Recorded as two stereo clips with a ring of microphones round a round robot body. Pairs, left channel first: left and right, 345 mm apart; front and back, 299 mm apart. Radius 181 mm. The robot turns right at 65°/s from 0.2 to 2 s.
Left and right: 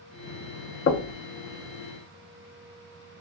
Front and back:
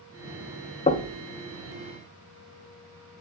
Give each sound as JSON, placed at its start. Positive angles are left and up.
{"t": 0.9, "sound": "knocking", "azimuth_deg": 55, "distance_m": 0.6}